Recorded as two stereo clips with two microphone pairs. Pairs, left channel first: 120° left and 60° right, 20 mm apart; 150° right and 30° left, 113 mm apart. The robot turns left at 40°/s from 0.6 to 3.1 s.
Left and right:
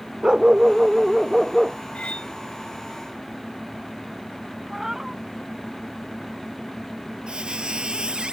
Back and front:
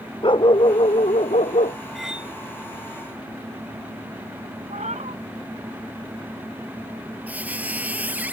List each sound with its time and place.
0.2 s a dog barking: 110° right; by 1.8 s 155° right
1.9 s cutlery clinking: 120° left; by 2.3 s 105° left
4.7 s a cat meowing: 15° left
7.3 s a squeak: 45° right